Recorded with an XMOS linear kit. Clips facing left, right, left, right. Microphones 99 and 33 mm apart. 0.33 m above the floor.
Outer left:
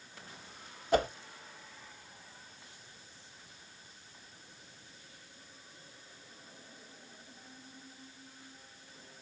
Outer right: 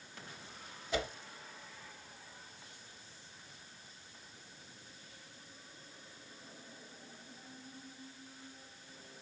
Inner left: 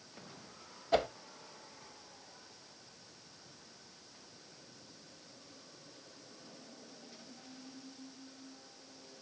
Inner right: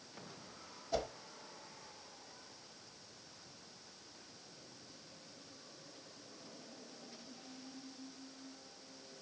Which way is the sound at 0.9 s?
45° left (ahead or behind).